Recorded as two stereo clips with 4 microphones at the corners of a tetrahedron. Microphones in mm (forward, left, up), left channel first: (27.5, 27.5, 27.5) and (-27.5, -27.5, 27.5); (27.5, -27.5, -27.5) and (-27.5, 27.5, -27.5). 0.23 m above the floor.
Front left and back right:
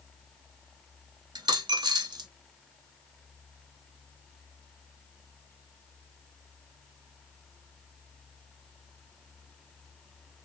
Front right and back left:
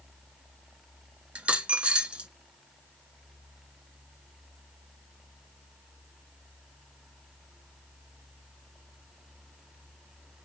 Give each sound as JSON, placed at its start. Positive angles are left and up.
{"t": 1.4, "sound": "a dropped coin", "azimuth_deg": -150, "distance_m": 0.6}